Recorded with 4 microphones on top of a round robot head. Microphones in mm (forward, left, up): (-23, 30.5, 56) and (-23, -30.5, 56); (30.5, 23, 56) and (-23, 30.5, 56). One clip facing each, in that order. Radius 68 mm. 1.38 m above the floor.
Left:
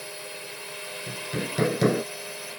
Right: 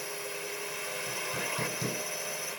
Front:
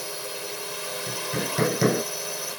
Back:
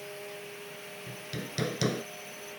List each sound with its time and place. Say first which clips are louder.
0.0 s a drone: right 1 dB, front 7 dB; 5° right
1.1 s hammering: left 5 dB, front 11 dB; 45° left